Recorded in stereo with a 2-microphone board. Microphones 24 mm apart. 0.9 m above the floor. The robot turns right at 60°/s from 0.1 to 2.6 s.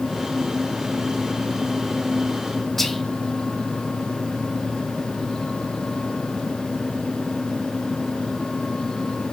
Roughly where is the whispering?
Centre.